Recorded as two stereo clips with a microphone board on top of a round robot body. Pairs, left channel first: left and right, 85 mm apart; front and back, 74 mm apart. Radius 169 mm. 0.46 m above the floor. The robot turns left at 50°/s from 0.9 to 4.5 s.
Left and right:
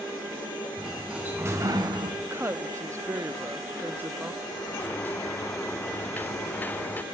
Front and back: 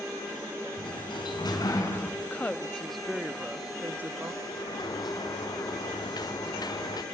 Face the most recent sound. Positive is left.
turn(degrees=20)